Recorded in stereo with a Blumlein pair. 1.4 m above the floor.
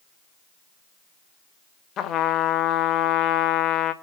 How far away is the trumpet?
About 1.4 m.